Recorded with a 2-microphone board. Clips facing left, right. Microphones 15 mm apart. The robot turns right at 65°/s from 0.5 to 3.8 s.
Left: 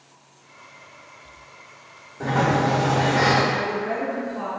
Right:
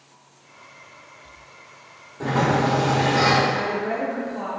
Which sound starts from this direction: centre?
A woman speaking, at 3.5 s.